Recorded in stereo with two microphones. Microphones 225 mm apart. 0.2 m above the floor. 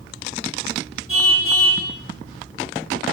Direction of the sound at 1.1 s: 70° left (ahead or behind).